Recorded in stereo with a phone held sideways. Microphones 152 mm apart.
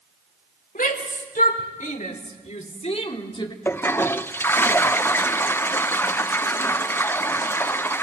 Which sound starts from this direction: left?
A shout, at 0.8 s.